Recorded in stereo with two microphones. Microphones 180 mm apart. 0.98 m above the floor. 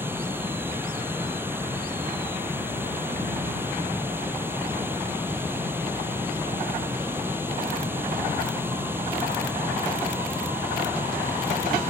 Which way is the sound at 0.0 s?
10° right (ahead or behind).